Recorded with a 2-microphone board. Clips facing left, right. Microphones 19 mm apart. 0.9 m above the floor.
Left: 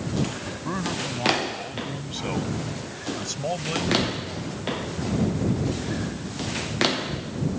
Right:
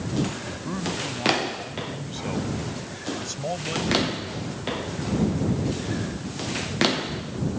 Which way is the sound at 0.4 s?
30° left (ahead or behind).